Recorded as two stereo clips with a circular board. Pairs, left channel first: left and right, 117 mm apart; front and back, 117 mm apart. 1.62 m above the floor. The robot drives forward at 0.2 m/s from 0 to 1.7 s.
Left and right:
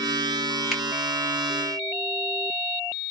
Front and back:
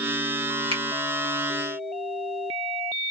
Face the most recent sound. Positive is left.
turn(degrees=-175)